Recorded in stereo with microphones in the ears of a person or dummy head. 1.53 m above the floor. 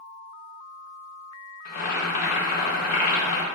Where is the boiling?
45° left (ahead or behind), 0.9 m.